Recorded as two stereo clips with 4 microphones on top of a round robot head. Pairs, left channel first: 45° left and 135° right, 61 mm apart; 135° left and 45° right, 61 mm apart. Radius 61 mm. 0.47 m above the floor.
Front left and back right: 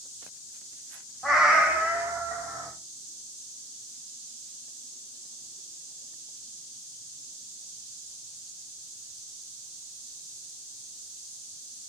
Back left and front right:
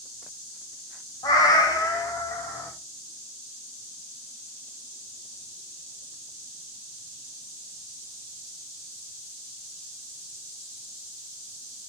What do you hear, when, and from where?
1.2 s a cat meowing: 140° left, 1.3 m; by 2.7 s 175° right, 1.8 m